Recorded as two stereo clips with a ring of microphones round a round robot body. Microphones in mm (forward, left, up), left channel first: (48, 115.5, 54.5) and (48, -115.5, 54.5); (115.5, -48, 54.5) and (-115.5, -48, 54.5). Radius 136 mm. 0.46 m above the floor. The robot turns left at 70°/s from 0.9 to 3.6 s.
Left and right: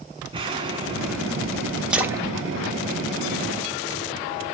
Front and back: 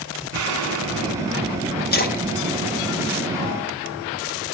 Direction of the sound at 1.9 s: 5° right.